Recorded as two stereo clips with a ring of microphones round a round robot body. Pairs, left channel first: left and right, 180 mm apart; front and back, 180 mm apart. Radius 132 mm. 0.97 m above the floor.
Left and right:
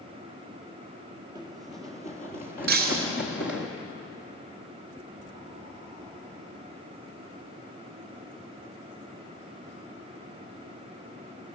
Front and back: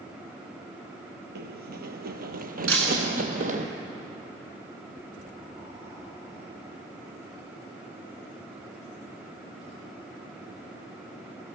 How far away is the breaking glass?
About 2 m.